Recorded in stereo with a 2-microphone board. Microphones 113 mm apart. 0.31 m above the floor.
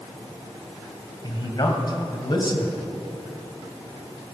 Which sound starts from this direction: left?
A man speaking, at 1.2 s.